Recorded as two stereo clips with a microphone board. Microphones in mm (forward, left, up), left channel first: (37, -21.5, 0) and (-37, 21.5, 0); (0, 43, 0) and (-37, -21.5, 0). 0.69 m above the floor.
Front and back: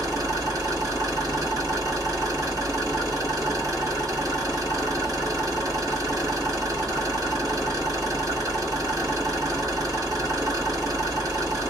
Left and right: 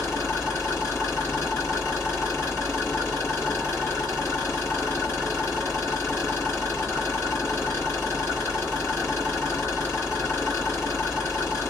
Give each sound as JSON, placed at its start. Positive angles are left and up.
{"t": 0.0, "sound": "an engine running", "azimuth_deg": 110, "distance_m": 1.6}